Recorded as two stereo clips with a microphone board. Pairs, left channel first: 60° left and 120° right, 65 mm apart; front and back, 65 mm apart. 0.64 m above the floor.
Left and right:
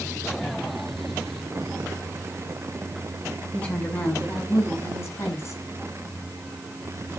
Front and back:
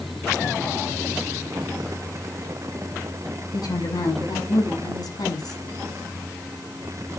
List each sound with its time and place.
3.5 s a woman speaking: 5° right, 6.5 m; by 5.6 s 15° left, 6.5 m